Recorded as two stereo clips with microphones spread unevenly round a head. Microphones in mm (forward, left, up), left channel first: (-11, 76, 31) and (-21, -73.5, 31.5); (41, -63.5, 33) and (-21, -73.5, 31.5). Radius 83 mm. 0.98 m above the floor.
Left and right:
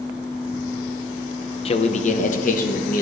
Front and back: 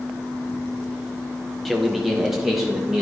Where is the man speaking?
100° left, 0.6 m; by 3.0 s 105° left, 1.3 m.